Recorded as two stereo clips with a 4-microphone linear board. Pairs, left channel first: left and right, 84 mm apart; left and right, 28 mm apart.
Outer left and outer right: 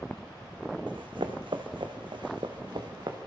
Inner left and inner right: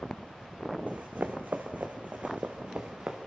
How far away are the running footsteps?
About 2 m.